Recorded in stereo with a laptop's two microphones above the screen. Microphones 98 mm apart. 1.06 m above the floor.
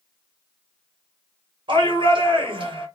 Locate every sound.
1.7 s a shout: 55° right (ahead or behind), 1.1 m